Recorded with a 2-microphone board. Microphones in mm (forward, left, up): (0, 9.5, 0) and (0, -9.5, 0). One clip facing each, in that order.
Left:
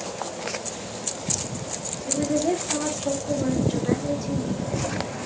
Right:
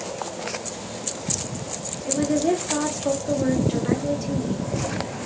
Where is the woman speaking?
25° right (ahead or behind), 1.6 m.